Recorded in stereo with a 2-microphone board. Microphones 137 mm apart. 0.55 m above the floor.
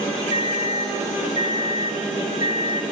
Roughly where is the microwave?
Left.